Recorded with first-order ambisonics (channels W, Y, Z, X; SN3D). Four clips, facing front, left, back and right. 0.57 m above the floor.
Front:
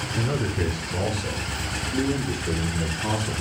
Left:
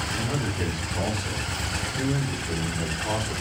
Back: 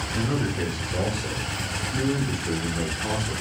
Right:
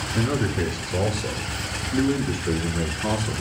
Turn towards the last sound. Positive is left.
turn(degrees=-65)